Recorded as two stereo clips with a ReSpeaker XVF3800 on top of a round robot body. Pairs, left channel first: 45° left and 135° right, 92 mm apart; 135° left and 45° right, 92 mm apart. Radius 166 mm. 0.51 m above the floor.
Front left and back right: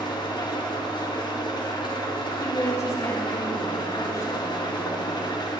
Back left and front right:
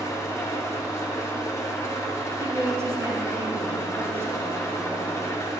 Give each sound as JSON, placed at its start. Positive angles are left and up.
{"t": 0.0, "sound": "an engine running", "azimuth_deg": 75, "distance_m": 1.1}
{"t": 2.4, "sound": "a woman speaking", "azimuth_deg": 5, "distance_m": 1.3}